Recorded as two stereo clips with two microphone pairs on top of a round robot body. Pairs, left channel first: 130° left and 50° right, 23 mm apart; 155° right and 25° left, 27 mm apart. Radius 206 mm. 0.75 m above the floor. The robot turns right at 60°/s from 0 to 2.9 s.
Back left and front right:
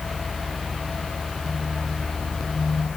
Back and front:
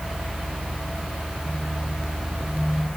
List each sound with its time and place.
Only background noise.